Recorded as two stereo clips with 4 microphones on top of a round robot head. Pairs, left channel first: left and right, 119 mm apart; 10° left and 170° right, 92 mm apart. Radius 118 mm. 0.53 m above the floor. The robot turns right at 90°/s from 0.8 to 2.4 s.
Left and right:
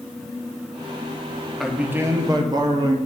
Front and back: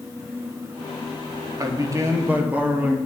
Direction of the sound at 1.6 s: Straight behind.